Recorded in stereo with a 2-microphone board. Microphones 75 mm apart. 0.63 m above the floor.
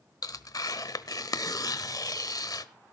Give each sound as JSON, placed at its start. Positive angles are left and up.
{"t": 0.2, "sound": "tearing paper", "side_deg": 55, "distance_m": 1.0}